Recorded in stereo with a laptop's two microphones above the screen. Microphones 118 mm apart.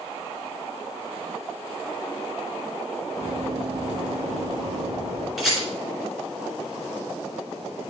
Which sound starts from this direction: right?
Running footsteps, at 3.2 s.